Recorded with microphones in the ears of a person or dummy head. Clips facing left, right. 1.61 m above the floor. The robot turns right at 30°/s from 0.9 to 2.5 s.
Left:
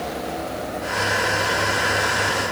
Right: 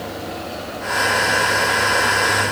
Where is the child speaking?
I don't hear a child speaking.